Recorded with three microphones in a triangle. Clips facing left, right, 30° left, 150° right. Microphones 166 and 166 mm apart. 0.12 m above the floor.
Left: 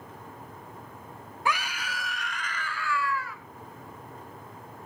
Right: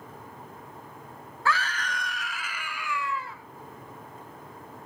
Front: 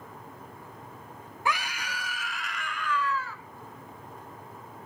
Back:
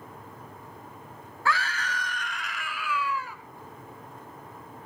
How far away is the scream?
About 1.3 m.